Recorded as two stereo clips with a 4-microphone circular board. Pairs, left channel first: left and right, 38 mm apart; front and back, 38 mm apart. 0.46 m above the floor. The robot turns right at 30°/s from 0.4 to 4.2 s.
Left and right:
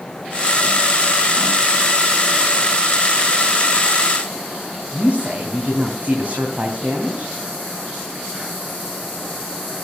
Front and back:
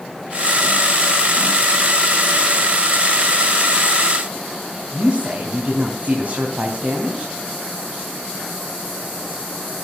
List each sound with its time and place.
4.9 s a woman speaking: 130° right, 3 m